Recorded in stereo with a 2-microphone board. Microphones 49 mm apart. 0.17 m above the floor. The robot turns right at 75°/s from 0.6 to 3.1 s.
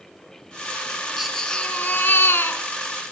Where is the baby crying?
5° right, 1.7 m; by 2.6 s 105° left, 1.7 m.